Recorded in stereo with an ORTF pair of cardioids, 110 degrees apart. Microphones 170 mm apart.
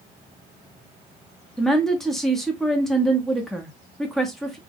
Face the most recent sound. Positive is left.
turn(degrees=0)